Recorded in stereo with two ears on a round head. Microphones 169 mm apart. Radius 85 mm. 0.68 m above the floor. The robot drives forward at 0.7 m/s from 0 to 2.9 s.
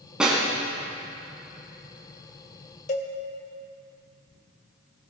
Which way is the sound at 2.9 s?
40° left (ahead or behind).